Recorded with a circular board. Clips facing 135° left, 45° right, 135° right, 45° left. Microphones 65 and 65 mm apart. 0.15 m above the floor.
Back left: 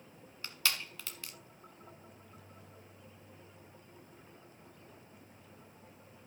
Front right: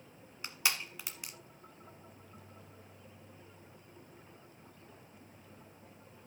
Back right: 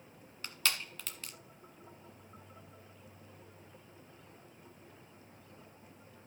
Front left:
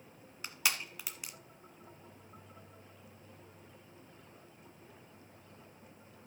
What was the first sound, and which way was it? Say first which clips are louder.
Crushing: front right 1 dB, front left 1 dB; 10° right.